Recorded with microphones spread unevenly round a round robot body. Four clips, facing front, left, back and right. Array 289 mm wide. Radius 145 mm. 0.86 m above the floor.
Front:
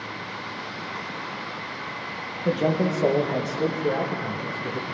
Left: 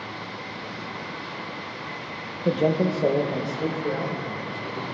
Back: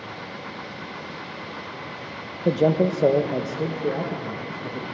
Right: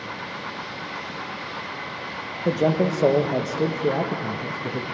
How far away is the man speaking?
About 0.9 m.